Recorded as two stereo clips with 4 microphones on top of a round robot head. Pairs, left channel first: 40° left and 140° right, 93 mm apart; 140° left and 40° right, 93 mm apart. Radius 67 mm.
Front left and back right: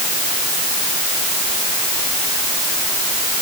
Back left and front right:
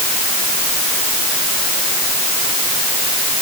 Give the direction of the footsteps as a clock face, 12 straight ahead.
No footsteps in this recording.